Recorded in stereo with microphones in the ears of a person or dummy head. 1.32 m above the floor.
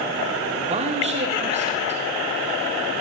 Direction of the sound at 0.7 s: 35° right (ahead or behind).